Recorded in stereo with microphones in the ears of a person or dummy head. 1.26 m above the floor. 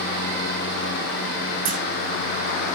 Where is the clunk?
40° right (ahead or behind), 2.5 m.